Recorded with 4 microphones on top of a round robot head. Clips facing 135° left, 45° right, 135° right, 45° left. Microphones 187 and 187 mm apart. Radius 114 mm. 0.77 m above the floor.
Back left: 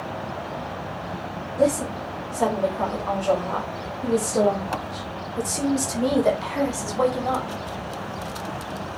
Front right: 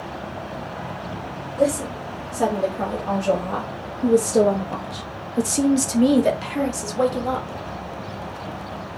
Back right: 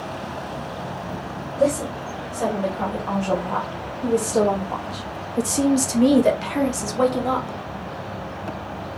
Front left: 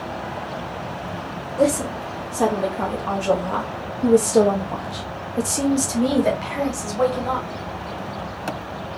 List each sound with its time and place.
1.6 s a woman speaking: 30° left, 2 m; by 7.6 s 115° right, 1.6 m